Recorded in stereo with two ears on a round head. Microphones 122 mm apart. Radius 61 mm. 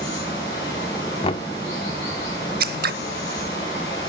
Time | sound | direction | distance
0.0 | running water | 30° left (ahead or behind) | 8 m
1.2 | knocking | 40° left (ahead or behind) | 0.6 m
2.6 | scissors | 80° right | 0.6 m